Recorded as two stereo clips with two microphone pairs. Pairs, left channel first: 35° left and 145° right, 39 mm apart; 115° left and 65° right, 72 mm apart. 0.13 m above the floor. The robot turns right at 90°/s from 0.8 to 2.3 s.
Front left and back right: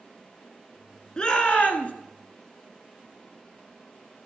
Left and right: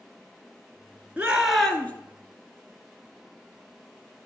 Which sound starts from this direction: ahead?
A shout, at 1.2 s.